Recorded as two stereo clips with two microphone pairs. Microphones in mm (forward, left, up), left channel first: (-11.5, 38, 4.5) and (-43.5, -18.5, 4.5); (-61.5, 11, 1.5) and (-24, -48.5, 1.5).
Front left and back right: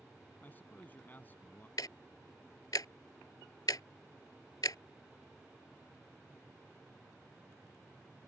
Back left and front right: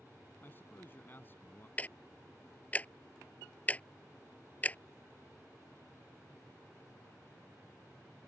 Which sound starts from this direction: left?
A man speaking, at 0.4 s.